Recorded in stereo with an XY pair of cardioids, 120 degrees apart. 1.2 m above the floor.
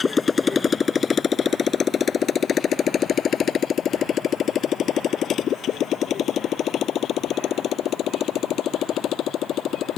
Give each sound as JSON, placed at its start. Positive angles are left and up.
{"t": 0.0, "sound": "a motorcycle", "azimuth_deg": 25}